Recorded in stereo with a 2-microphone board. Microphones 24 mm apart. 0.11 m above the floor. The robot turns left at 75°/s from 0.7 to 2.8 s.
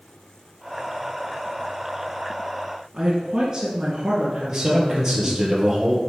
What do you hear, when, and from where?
2.9 s a woman speaking: 25° right (ahead or behind), 1.9 m
4.5 s a man speaking: 20° right (ahead or behind), 2.5 m